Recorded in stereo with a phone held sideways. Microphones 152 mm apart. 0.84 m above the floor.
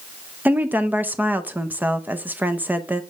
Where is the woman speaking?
10° right (ahead or behind), 0.6 m.